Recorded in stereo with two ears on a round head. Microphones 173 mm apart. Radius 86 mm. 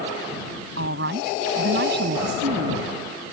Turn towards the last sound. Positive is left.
turn(degrees=-60)  # may be behind; listen again after turning